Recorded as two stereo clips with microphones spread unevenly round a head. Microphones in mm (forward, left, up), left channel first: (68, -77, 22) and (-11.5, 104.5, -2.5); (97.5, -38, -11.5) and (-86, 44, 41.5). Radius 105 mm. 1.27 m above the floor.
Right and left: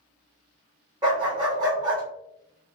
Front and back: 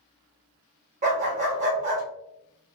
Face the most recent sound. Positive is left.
turn(degrees=-175)